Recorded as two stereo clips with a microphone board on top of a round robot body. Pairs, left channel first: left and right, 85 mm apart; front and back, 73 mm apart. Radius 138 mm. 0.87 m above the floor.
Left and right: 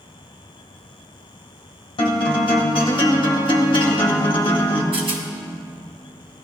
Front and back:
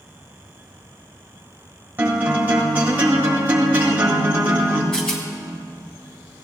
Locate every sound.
2.0 s a guitar: 115° left, 1.7 m
4.9 s a rattle: 80° right, 1.5 m